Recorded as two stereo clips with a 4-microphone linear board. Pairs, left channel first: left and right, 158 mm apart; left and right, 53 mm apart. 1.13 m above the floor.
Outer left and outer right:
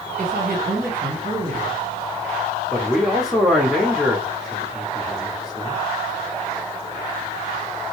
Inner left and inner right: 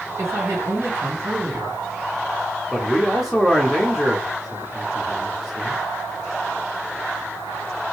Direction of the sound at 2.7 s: Centre (ahead or behind).